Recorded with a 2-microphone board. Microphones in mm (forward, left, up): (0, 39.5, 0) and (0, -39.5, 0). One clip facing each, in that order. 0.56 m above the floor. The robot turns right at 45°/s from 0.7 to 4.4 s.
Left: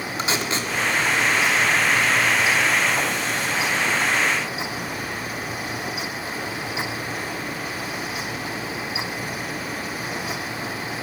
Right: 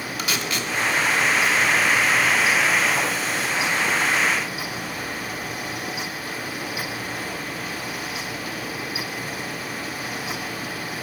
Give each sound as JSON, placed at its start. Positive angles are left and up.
{"t": 0.2, "sound": "tape being pulled", "side_deg": 30, "distance_m": 1.4}